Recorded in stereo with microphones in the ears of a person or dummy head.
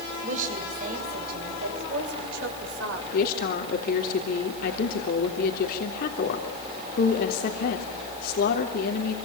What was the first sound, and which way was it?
A woman speaking, 40° right (ahead or behind).